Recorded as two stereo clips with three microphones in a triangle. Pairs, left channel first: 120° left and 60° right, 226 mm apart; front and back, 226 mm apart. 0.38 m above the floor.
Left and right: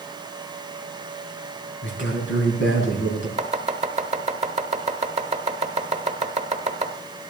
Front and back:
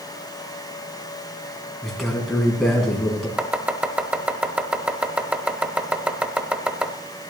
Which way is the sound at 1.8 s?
90° left.